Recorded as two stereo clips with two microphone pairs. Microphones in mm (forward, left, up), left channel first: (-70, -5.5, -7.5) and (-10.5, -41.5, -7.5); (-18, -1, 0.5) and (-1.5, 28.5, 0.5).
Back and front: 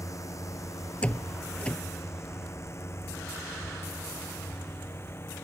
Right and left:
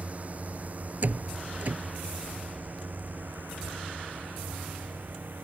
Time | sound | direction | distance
0.0 | a drone | 110° left | ?
1.0 | a door slam | 80° left | ?